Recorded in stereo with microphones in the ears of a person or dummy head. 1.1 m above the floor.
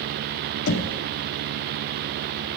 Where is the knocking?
70° left (ahead or behind), 0.7 m.